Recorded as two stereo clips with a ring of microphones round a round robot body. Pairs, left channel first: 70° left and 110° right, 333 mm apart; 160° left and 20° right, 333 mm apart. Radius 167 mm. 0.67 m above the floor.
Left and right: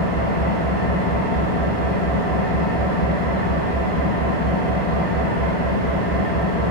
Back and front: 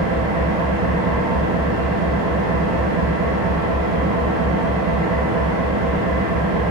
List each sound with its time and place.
0.0 s an engine running: 5° left, 3 m